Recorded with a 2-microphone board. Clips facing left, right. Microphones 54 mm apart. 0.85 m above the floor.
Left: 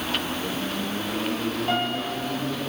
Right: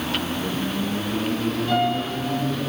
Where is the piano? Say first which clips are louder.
Right 5 dB; 35° left (ahead or behind), 7.5 m.